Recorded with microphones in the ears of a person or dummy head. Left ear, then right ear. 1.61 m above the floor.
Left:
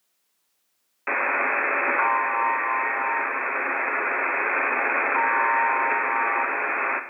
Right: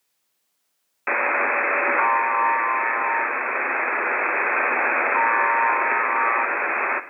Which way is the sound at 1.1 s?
15° right (ahead or behind).